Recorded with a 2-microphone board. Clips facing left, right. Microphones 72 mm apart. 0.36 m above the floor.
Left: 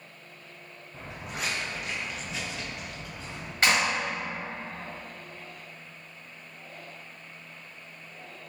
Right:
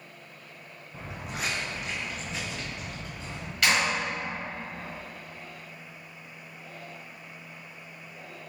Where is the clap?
35° left (ahead or behind), 1.7 m.